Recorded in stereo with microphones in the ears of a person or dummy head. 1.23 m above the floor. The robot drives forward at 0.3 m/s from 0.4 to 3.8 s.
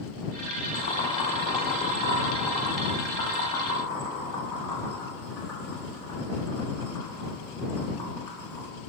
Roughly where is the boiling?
Left.